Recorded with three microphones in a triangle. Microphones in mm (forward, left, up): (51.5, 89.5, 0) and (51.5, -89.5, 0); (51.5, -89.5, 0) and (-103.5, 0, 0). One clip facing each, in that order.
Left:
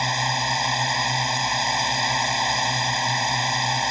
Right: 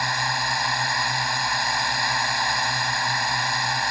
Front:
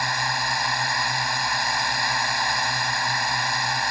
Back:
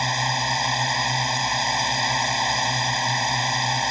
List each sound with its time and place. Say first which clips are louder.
0.0 s a drone: left 2 dB, back 2 dB; 120° left